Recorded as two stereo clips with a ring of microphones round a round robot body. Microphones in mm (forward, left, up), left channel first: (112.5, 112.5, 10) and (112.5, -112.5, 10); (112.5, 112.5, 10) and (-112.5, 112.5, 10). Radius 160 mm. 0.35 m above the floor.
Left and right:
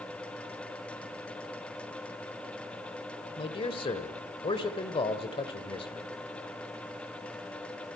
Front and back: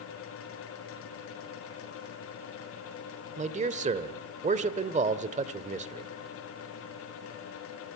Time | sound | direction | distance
3.4 | a man speaking | 145° left | 1.1 m